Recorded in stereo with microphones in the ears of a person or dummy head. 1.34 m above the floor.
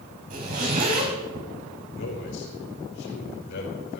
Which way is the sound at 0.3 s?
45° right (ahead or behind).